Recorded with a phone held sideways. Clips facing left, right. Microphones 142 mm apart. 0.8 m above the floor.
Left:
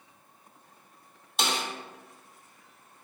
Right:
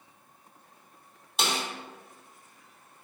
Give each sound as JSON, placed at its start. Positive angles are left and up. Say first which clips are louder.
{"t": 1.4, "sound": "a snare drum", "louder": "even", "side_deg": 0, "distance_m": 0.6}